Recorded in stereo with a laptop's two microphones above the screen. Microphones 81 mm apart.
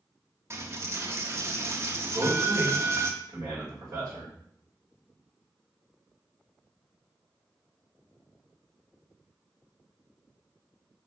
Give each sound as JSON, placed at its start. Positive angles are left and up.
{"t": 0.5, "sound": "a dropped coin", "side_deg": -35, "distance_m": 0.5}
{"t": 2.1, "sound": "a man speaking", "side_deg": -45, "distance_m": 1.8}